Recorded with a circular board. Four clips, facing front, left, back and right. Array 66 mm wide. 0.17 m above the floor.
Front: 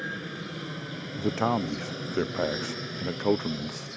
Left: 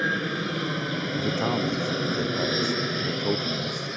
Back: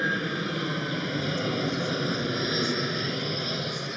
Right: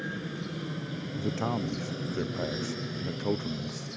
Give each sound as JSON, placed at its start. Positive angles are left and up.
{"t": 0.0, "sound": "an aircraft", "azimuth_deg": 125}
{"t": 1.2, "sound": "a man speaking", "azimuth_deg": 10}